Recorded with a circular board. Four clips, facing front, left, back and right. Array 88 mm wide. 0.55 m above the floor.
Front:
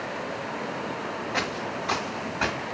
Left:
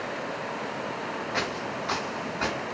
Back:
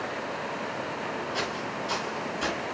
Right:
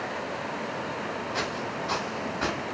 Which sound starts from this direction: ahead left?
Footsteps, at 1.3 s.